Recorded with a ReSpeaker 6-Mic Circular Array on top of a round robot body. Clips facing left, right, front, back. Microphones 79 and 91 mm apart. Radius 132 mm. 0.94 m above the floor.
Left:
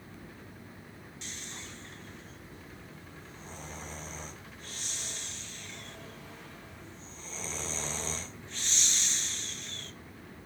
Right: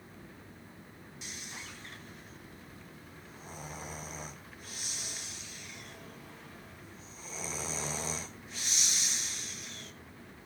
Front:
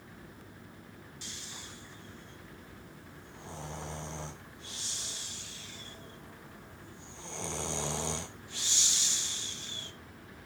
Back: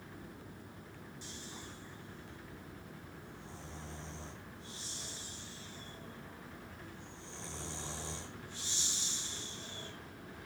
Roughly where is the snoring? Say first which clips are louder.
Even, even; ahead.